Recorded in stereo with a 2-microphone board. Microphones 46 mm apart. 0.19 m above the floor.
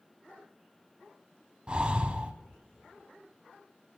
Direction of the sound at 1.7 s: 25° right (ahead or behind).